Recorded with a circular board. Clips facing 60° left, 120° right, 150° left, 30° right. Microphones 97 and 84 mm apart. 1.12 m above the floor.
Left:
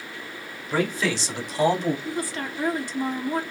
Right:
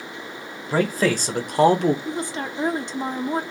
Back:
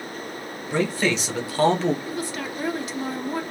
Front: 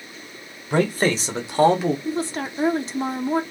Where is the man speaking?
65° right, 1.3 m; by 1.9 s 115° right, 1.3 m.